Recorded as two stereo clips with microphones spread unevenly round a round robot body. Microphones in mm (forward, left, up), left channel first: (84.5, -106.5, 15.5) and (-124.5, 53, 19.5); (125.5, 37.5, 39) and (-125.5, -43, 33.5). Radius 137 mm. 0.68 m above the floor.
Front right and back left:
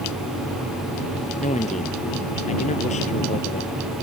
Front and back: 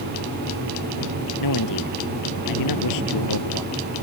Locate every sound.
1.4 s a man speaking: 30° left